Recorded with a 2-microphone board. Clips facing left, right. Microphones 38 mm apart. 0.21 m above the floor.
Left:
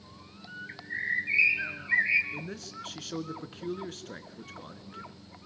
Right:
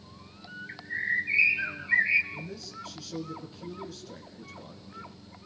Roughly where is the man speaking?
Left.